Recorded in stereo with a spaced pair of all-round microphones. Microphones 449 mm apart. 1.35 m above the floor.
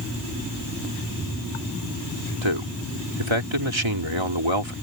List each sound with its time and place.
2.4 s a man speaking: 85° right